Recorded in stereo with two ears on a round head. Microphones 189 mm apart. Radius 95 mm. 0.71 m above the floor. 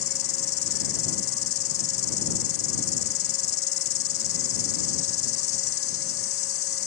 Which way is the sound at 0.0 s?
70° left (ahead or behind).